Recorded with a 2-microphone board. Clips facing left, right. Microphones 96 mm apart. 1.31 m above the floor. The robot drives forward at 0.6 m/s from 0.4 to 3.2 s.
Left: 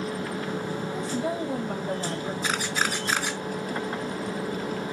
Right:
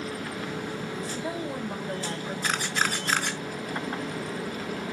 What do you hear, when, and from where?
0.9 s a woman speaking: 65° left (ahead or behind), 3 m; by 2.3 s 80° left, 3 m
2.4 s a camera shutter: 5° left (ahead or behind), 1.2 m